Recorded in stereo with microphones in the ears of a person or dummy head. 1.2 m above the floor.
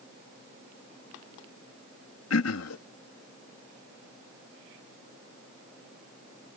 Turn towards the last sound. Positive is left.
turn(degrees=70)  # may be behind; listen again after turning